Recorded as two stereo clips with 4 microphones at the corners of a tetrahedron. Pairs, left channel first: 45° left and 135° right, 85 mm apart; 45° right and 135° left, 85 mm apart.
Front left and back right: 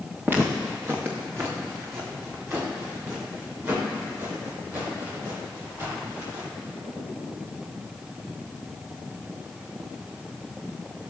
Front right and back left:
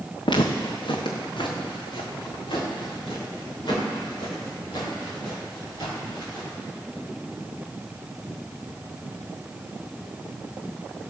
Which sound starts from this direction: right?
Footsteps, at 0.2 s.